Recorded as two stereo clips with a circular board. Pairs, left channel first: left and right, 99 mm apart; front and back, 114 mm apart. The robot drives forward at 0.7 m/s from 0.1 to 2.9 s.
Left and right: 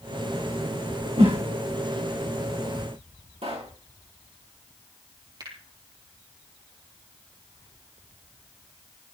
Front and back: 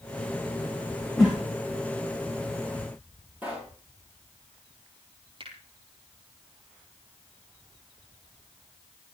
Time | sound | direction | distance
1.2 | a whoosh | 85° right | 6.5 m
3.4 | a pop | 105° right | 8 m
5.4 | a finger snap | 140° right | 6.5 m